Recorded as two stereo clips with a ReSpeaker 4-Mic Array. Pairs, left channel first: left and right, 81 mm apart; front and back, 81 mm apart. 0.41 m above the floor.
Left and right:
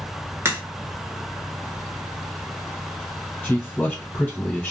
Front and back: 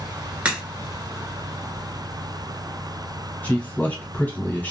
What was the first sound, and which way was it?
A crack, 120° right.